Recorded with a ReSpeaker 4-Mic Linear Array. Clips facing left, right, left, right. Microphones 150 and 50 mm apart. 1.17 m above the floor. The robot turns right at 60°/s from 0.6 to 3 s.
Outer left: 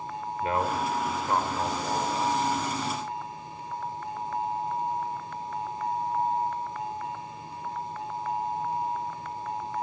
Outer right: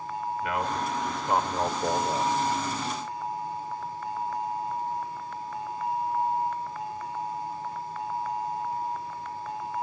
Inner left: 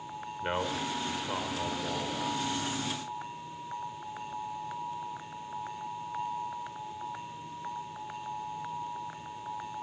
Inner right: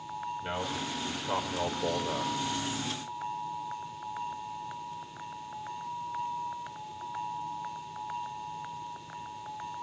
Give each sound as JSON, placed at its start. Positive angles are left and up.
{"t": 0.4, "sound": "a man speaking", "azimuth_deg": 150, "distance_m": 4.0}